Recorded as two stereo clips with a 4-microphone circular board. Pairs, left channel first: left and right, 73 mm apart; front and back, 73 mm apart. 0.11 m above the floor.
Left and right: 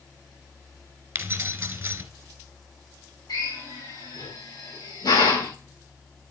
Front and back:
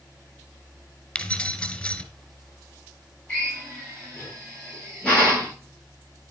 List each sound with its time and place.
1.1 s keys jangling: 60° right, 1.1 m
3.3 s a drill: 75° left, 7 m